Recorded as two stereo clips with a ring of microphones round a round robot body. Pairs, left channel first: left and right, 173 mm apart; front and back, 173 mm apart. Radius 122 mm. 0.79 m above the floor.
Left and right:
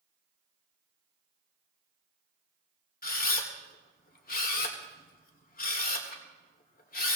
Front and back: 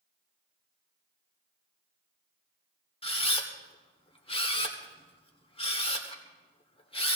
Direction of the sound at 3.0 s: 55° left.